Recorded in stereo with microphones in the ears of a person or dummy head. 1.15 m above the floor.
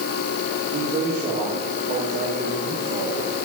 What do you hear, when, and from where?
0.7 s a man speaking: 60° right (ahead or behind), 9.5 m; by 3.3 s 70° right (ahead or behind), 6.5 m